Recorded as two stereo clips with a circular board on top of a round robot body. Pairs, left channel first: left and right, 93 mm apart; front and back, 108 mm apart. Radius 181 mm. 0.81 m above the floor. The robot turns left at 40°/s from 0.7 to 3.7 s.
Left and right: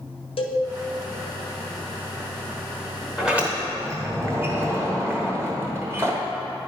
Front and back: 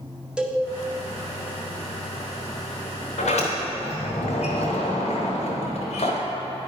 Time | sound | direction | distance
0.4 | a cowbell | 100° left | 0.8 m
3.2 | a sliding door | 5° right | 1.2 m